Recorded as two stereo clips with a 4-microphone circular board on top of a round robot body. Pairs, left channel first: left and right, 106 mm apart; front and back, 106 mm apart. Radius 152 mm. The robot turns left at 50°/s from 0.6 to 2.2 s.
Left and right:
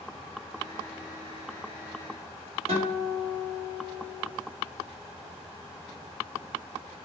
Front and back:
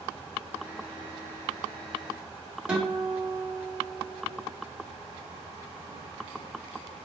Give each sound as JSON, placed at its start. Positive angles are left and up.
{"t": 2.7, "sound": "a guitar", "azimuth_deg": -100, "distance_m": 1.8}